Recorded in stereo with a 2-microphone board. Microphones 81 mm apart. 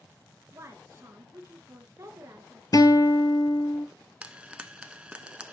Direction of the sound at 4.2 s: 15° right (ahead or behind).